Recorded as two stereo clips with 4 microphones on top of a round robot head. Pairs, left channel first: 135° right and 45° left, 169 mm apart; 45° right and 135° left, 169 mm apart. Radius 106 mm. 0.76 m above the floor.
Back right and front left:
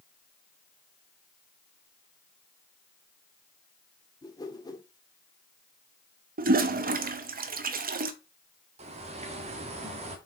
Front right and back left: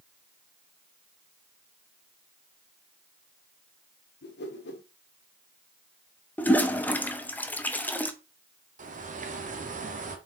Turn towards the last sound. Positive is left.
turn(degrees=95)